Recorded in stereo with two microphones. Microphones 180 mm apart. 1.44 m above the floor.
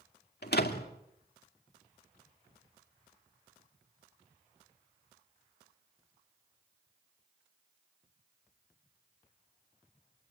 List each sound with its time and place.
0.4 s a door slam: 70° left (ahead or behind), 2 m